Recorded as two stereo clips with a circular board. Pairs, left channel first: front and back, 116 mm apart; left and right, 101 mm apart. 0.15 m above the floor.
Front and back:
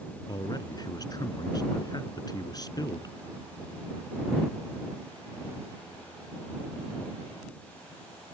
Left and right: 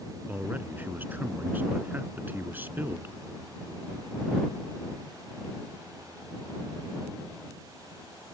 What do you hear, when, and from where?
0.3 s a man speaking: 30° right